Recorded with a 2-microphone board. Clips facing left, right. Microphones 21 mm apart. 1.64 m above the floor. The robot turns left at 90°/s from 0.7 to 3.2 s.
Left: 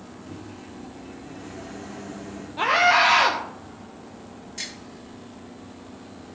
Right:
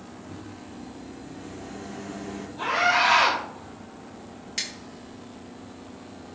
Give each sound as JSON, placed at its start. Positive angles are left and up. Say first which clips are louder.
{"t": 0.3, "sound": "a microwave", "louder": "left 2 dB", "azimuth_deg": 120, "distance_m": 2.5}
{"t": 2.6, "sound": "a scream", "louder": "left 4 dB", "azimuth_deg": 70, "distance_m": 1.3}
{"t": 4.6, "sound": "scissors", "louder": "right 3 dB", "side_deg": -55, "distance_m": 6.0}